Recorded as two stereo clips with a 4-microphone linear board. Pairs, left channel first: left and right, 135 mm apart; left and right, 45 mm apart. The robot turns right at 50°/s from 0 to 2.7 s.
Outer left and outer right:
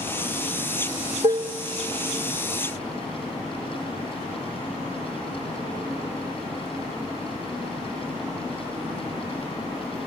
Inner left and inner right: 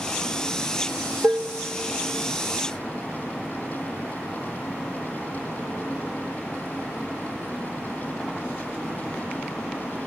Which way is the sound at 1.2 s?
50° right (ahead or behind).